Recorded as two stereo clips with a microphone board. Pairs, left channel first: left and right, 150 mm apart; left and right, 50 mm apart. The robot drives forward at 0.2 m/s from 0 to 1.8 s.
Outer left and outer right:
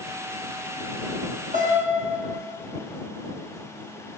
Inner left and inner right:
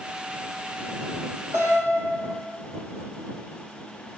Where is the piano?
60° right (ahead or behind), 5 m.